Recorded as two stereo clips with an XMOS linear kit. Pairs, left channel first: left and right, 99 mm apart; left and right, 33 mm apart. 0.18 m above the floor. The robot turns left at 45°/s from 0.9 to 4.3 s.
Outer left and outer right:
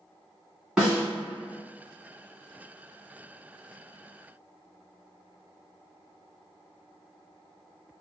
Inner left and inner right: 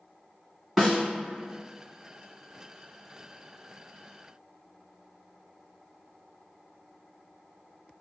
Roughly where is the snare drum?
Centre.